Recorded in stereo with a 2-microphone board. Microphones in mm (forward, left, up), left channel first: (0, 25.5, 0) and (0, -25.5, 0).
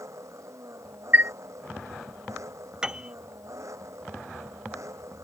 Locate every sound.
0.0 s an engine running: 75° right (ahead or behind)
1.1 s a chime: 40° right (ahead or behind)
2.8 s a piano: 15° right (ahead or behind)